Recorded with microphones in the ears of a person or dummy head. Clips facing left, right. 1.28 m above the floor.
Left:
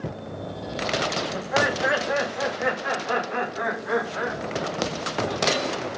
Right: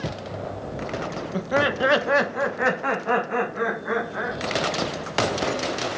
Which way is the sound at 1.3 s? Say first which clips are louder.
Right 4 dB; 35° right (ahead or behind).